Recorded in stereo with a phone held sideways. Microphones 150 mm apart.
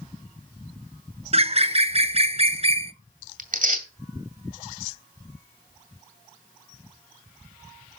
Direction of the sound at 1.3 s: 40° right (ahead or behind).